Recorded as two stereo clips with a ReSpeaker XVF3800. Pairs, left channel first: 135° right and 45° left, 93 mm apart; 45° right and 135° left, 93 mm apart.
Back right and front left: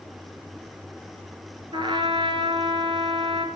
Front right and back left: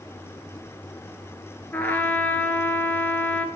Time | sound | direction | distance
1.7 | a trumpet | 25° left | 1.5 m